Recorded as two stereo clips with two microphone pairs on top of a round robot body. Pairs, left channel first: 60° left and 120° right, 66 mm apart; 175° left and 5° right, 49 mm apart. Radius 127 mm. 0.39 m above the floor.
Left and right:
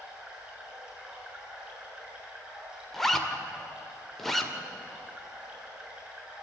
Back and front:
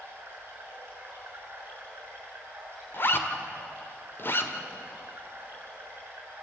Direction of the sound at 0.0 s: 50° right.